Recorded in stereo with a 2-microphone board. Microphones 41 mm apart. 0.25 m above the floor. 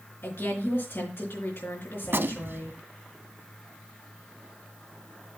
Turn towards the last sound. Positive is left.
turn(degrees=-60)  # may be behind; listen again after turning